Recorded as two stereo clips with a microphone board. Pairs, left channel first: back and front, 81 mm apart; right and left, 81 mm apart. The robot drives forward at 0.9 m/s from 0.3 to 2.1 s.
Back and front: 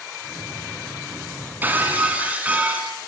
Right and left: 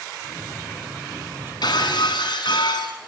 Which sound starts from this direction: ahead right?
Breaking glass, at 1.6 s.